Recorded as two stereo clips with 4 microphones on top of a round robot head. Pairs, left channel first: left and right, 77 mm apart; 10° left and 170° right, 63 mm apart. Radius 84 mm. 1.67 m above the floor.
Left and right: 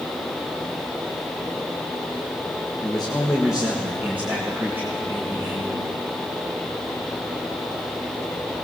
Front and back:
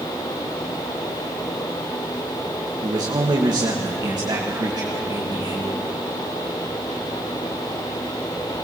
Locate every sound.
2.8 s a man speaking: 170° left, 1.8 m; by 5.9 s 155° right, 4.5 m